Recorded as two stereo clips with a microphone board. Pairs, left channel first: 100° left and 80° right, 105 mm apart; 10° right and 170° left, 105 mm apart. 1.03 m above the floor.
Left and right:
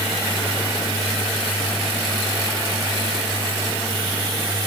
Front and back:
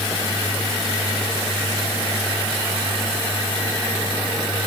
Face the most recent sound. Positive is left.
No sound to turn to.